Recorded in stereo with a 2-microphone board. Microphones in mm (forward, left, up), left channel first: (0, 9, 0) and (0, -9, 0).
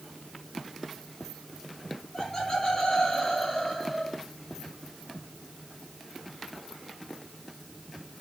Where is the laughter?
55° left (ahead or behind), 4.5 m; by 4.2 s 20° left (ahead or behind), 4.5 m.